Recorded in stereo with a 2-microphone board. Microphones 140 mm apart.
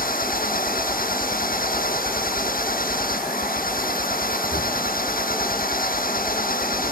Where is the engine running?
85° left.